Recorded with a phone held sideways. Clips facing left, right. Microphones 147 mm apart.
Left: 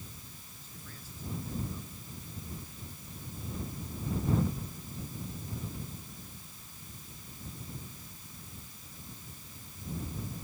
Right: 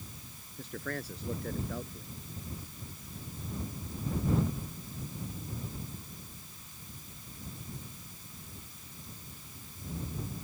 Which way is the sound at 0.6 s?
75° right (ahead or behind).